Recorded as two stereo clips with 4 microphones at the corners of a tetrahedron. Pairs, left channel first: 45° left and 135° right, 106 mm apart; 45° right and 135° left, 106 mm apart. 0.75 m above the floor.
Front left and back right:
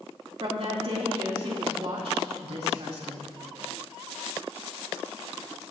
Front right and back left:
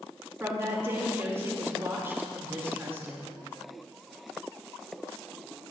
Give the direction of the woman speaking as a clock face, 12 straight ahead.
5 o'clock.